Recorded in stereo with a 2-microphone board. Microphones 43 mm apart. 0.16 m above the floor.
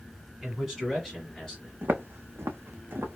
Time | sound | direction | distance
0.4 | a man speaking | 15° right (ahead or behind) | 1.7 m
1.8 | footsteps | 55° right (ahead or behind) | 0.7 m